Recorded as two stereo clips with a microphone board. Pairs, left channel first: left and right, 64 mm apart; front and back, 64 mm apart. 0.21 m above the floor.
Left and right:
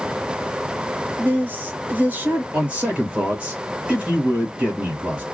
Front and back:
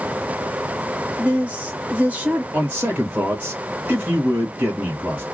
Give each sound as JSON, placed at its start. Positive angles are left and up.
{"t": 1.2, "sound": "a woman speaking", "azimuth_deg": -130, "distance_m": 1.2}
{"t": 2.5, "sound": "a man speaking", "azimuth_deg": -140, "distance_m": 1.4}